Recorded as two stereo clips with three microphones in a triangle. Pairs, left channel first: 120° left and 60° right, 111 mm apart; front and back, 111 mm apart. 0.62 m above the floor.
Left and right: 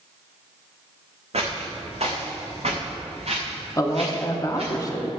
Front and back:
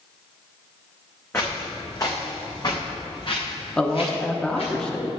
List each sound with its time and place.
1.3 s footsteps: 70° right, 2.5 m; by 4.7 s 30° right, 3.5 m
3.8 s a man speaking: 80° left, 0.9 m